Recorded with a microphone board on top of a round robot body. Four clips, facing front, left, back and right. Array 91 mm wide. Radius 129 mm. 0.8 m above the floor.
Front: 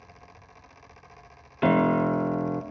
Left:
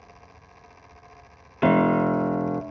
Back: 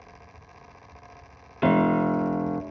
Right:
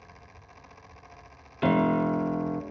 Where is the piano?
90° left, 0.9 m.